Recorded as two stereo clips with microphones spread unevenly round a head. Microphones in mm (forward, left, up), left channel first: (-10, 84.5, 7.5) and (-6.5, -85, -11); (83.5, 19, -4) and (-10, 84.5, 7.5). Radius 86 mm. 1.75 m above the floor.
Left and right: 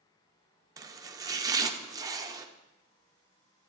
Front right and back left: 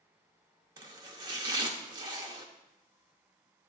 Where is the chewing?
I don't hear chewing.